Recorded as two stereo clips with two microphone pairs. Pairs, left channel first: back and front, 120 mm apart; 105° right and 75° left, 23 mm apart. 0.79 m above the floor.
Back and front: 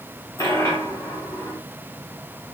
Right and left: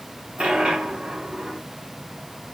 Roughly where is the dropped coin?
Behind left.